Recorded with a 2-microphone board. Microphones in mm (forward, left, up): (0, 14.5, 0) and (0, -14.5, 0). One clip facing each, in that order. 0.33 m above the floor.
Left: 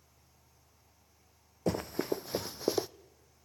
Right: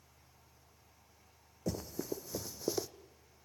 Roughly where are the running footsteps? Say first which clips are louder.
Left 7 dB; left.